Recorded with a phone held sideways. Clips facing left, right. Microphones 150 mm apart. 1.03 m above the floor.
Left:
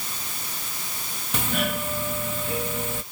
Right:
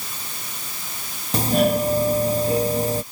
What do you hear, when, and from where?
1.3 s a doorbell: 35° right (ahead or behind)